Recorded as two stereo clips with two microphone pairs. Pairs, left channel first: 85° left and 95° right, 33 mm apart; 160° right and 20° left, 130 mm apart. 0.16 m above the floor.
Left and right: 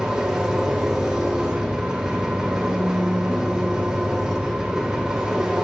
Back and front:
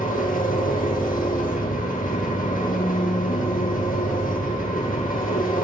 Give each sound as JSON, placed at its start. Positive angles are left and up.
{"t": 0.0, "sound": "an engine running", "azimuth_deg": -170, "distance_m": 4.0}